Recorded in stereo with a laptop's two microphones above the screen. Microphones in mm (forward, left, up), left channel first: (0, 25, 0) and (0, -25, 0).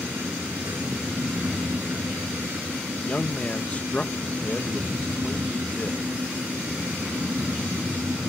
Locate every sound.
0.0 s a fan: 70° right (ahead or behind)
2.9 s a man speaking: 30° left (ahead or behind)